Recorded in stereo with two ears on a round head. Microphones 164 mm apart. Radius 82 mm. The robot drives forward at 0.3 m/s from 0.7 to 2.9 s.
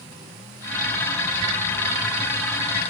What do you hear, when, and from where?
Only background noise.